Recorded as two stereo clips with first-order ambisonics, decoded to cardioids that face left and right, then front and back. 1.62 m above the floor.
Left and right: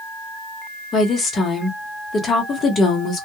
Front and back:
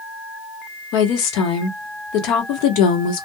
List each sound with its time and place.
0.9 s a woman speaking: 20° left, 1.0 m